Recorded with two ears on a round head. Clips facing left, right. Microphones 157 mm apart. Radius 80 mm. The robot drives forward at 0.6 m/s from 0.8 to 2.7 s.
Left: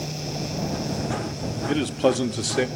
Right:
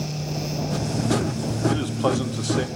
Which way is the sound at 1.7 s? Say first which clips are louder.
Left 4 dB; 25° left (ahead or behind).